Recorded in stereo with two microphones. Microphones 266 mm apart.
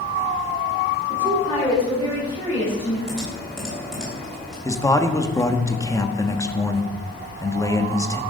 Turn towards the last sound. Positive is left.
turn(degrees=10)  # may be behind; listen again after turning